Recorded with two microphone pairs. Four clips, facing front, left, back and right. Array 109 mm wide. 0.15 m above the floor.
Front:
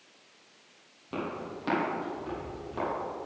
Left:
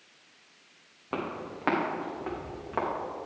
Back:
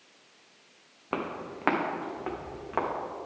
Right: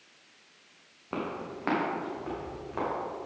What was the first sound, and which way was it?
Footsteps, 170° left.